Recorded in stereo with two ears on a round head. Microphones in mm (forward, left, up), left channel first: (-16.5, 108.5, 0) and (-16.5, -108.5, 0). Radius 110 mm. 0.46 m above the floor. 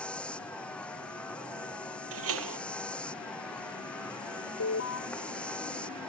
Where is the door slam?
65° right (ahead or behind).